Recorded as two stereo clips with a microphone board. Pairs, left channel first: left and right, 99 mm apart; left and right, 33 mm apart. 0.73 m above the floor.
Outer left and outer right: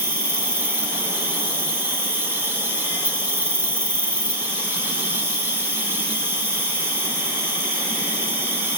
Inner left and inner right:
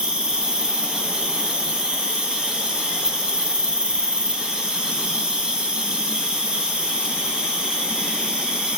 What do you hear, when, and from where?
0.0 s an insect: 20° right (ahead or behind), 0.9 m